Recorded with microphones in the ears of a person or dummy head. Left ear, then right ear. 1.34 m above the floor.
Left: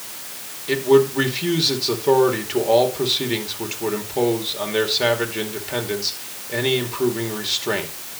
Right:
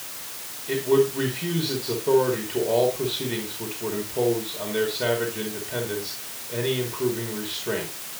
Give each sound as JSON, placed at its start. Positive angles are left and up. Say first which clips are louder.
{"t": 0.7, "sound": "a man speaking", "louder": "left 5 dB", "side_deg": 40, "distance_m": 2.5}